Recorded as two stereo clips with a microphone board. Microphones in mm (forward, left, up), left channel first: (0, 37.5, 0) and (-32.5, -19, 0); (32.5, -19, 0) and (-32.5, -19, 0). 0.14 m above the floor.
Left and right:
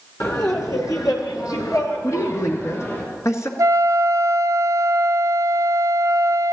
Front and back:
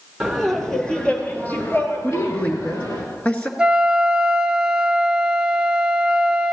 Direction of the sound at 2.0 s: 65° left.